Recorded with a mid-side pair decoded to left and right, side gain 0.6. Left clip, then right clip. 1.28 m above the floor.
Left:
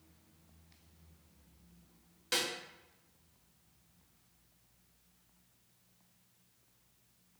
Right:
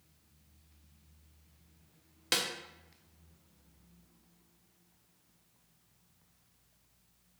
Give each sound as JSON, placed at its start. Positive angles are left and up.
{"t": 2.3, "sound": "a snare drum", "azimuth_deg": -45, "distance_m": 0.7}